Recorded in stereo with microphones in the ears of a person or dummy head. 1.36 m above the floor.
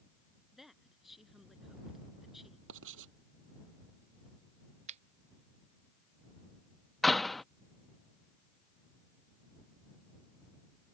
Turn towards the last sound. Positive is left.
turn(degrees=0)  # may be behind; listen again after turning